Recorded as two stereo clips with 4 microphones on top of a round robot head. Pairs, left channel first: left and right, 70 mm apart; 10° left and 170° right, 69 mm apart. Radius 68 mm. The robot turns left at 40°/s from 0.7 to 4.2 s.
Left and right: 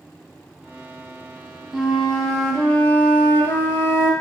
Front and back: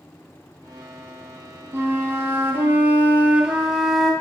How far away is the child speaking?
I don't hear a child speaking.